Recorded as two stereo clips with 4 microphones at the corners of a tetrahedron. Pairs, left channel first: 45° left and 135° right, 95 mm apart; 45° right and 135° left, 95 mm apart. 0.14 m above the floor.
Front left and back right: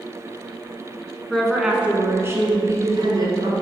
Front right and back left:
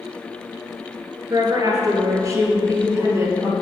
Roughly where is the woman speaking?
Behind left.